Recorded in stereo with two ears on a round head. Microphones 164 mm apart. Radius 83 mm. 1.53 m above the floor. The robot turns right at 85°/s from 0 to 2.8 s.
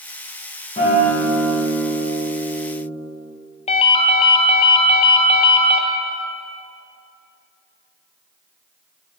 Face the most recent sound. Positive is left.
turn(degrees=35)  # may be behind; listen again after turning